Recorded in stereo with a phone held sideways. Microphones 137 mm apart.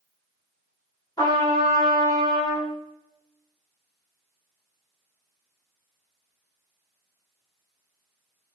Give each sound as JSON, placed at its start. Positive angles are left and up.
{"t": 1.2, "sound": "a trumpet", "side_deg": 30, "distance_m": 1.2}